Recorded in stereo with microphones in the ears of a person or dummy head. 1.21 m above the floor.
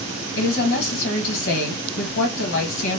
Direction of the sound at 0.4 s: 60° left (ahead or behind).